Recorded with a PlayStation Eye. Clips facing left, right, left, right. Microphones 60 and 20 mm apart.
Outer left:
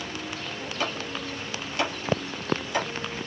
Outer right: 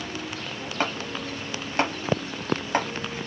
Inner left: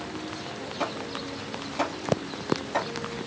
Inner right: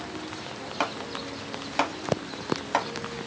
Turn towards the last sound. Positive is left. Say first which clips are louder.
# outer right 3 dB, inner right 2 dB
turn(degrees=-40)  # may be behind; listen again after turning